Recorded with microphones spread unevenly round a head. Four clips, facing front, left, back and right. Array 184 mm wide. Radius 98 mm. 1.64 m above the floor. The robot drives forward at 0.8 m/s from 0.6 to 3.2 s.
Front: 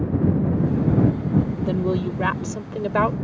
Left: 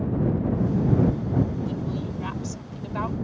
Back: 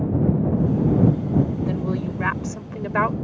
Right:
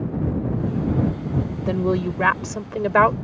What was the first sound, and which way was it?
A woman speaking, 55° right.